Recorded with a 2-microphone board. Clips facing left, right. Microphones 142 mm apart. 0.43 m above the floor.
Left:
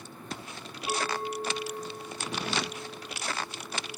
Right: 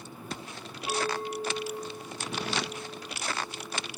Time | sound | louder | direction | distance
0.9 | a clink | right 1 dB | 15° right (ahead or behind) | 1.6 m